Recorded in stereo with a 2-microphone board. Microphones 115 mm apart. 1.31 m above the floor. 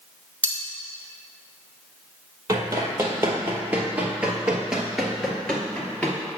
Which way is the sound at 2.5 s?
25° right (ahead or behind).